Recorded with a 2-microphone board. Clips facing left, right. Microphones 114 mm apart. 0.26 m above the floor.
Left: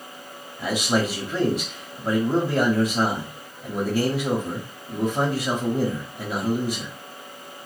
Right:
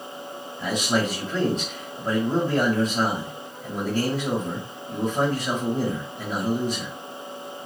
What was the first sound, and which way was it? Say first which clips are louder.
A man speaking: left 1 dB; 5° left (ahead or behind).